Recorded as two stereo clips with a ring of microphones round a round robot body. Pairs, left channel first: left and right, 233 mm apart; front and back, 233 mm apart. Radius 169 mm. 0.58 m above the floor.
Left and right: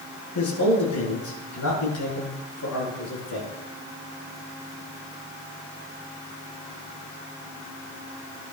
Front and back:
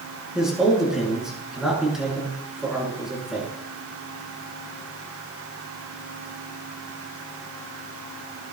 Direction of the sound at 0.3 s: 90° left.